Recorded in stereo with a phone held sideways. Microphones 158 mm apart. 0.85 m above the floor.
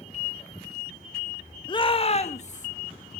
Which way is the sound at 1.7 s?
30° left (ahead or behind).